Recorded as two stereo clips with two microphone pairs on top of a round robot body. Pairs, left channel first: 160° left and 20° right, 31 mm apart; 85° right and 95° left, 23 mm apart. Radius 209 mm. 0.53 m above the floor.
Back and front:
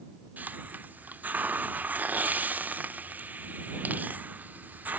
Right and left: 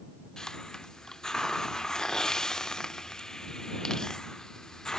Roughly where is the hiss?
Ahead right.